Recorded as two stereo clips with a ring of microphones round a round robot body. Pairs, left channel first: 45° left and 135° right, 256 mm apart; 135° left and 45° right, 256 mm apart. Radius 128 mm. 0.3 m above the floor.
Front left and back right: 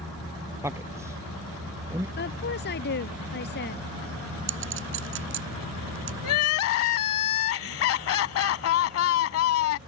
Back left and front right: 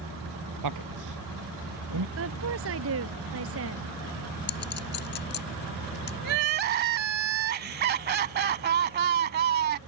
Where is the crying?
10° left.